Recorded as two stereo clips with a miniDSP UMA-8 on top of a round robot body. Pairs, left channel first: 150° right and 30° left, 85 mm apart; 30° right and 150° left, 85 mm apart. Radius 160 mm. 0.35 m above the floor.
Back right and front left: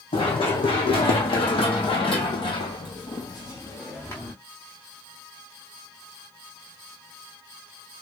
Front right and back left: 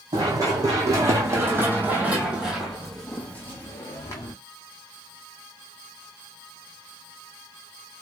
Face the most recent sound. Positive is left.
turn(degrees=-85)